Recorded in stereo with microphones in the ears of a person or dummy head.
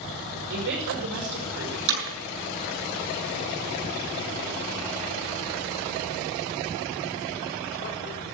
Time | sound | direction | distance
0.5 | a woman speaking | 70° right (ahead or behind) | 5.5 m
1.9 | hammering | 75° right (ahead or behind) | 8.5 m